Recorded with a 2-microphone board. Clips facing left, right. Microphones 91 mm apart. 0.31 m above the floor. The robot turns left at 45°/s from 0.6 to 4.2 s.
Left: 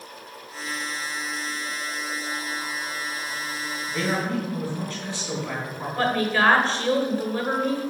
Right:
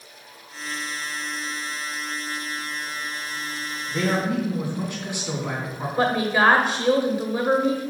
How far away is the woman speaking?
About 1.0 m.